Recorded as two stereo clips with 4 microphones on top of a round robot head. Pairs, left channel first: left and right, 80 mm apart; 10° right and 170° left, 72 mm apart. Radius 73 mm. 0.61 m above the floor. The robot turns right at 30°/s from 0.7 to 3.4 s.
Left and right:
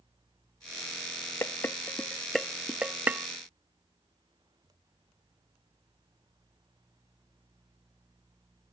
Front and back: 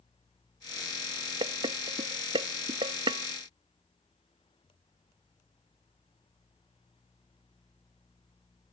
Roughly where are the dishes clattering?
Behind left.